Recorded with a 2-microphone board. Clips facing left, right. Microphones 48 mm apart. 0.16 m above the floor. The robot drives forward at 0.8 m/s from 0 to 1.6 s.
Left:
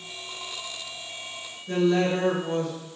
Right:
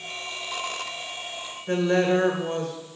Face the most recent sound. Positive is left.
turn(degrees=-50)  # may be behind; listen again after turning